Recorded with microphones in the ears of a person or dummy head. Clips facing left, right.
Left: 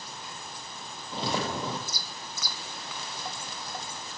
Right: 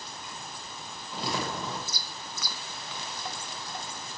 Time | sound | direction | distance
1.1 | footsteps | 25° left (ahead or behind) | 2.5 m